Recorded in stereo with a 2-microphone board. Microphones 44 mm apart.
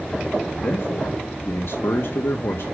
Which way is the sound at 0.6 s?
80° left.